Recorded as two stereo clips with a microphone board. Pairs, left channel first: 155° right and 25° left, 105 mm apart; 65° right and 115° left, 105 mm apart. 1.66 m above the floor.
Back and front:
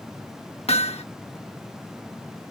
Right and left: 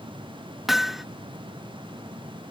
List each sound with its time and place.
0.7 s hammering: 160° right